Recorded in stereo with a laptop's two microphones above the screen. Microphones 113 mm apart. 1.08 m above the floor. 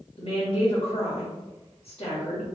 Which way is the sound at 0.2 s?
55° left (ahead or behind).